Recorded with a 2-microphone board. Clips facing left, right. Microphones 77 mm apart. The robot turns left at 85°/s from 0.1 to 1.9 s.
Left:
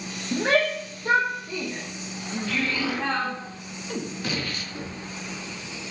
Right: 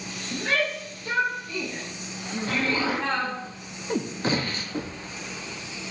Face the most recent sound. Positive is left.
turn(degrees=-50)  # may be behind; listen again after turning